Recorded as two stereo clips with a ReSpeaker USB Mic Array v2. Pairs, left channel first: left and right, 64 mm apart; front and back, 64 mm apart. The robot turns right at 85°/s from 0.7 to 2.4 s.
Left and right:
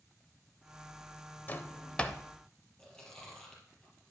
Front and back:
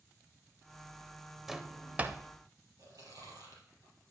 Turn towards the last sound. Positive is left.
turn(degrees=165)